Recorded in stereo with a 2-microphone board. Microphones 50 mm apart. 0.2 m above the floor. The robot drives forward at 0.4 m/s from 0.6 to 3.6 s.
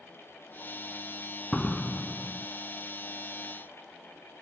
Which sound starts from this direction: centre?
A door slam, at 1.5 s.